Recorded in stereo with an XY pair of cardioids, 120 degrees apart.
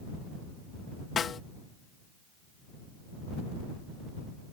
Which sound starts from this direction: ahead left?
A snare drum, at 1.2 s.